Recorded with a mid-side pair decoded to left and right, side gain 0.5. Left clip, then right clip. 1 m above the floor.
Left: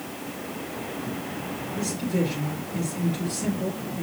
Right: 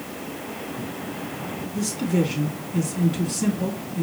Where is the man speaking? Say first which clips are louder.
Right 3 dB; 60° right, 2.5 m.